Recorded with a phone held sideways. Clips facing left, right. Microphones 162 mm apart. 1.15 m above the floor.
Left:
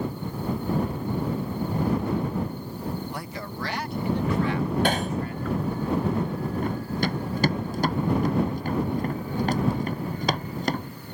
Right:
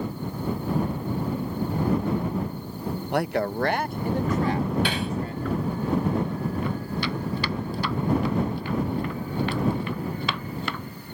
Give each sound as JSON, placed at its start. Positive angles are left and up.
{"t": 3.1, "sound": "a man speaking", "side_deg": -65}
{"t": 4.8, "sound": "hammering", "side_deg": 45}
{"t": 6.6, "sound": "running footsteps", "side_deg": 45}